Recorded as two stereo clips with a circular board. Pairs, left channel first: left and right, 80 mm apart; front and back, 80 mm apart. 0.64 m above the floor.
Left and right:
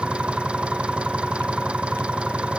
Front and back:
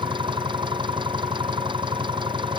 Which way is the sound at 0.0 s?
165° right.